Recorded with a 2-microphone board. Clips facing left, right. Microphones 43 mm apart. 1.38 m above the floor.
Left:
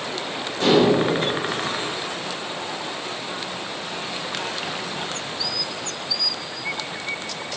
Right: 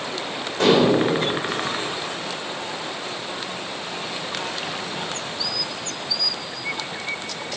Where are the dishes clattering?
80° right, 3.5 m.